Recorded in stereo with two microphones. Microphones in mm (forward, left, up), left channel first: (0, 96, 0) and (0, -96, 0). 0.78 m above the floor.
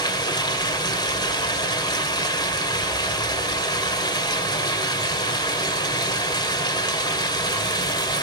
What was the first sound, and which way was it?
Running water, 20° left (ahead or behind).